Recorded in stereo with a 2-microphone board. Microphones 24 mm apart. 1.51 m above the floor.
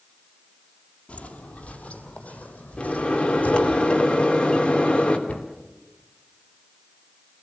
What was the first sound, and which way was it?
Footsteps, 55° left (ahead or behind).